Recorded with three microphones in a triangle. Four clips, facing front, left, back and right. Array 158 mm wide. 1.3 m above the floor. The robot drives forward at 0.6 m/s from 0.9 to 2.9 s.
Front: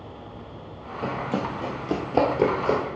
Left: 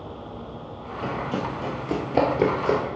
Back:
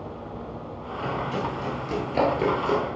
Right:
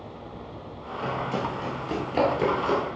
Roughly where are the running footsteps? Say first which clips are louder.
Left 1 dB, front 1 dB; ahead.